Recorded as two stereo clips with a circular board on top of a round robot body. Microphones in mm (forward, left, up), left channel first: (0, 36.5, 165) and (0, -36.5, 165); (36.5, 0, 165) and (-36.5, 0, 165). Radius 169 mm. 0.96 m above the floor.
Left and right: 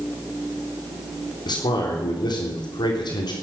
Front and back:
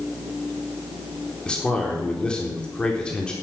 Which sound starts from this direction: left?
A man speaking, at 1.4 s.